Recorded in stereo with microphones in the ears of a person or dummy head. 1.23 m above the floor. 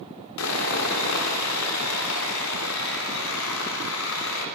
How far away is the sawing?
About 3 m.